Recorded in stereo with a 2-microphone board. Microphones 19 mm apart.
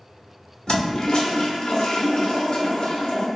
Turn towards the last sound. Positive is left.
turn(degrees=40)  # may be behind; listen again after turning